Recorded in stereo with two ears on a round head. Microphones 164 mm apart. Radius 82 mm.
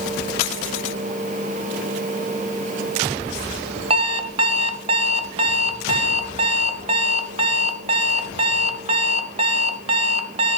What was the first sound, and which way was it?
An alarm clock, 30° right (ahead or behind).